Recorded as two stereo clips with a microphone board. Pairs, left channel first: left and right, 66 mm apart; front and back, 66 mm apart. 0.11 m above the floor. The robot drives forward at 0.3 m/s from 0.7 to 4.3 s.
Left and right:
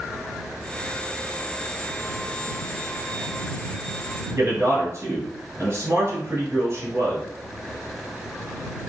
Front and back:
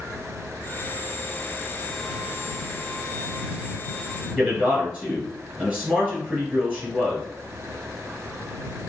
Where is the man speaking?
120° right, 1.5 m.